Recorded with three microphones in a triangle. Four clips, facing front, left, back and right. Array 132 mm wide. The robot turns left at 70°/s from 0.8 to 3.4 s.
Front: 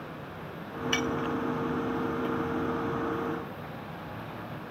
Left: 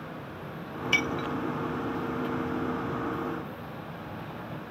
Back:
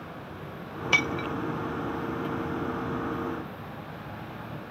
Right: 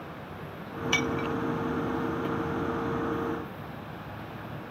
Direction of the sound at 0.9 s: 170° right.